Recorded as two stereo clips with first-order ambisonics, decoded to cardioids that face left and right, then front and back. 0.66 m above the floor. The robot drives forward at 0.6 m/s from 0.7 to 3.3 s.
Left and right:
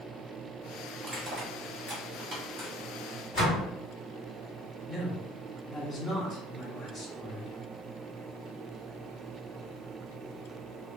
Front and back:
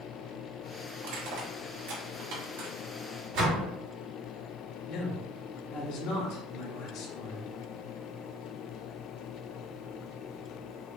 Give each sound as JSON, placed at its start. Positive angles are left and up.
{"t": 1.0, "sound": "crushing", "azimuth_deg": -160, "distance_m": 1.2}
{"t": 3.3, "sound": "a door slam", "azimuth_deg": 150, "distance_m": 1.7}
{"t": 4.9, "sound": "a man speaking", "azimuth_deg": 15, "distance_m": 1.7}